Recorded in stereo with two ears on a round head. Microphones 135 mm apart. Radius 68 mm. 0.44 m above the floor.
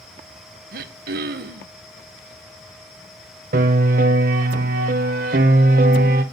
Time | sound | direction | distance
0.7 | throat clearing | 65° right (ahead or behind) | 0.5 m
3.5 | a piano | 65° right (ahead or behind) | 0.6 m